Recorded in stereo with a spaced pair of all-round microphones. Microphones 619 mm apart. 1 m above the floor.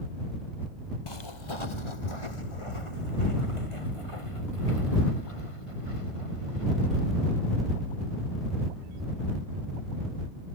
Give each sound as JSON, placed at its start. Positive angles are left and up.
{"t": 1.1, "sound": "footsteps", "side_deg": 40}